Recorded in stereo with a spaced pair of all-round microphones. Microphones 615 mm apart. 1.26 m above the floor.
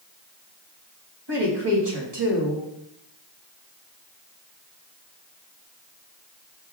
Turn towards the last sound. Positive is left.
turn(degrees=-40)  # may be behind; listen again after turning